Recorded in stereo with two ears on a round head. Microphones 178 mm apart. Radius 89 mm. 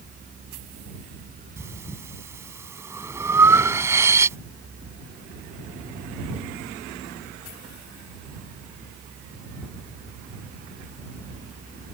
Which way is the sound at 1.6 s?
15° right (ahead or behind).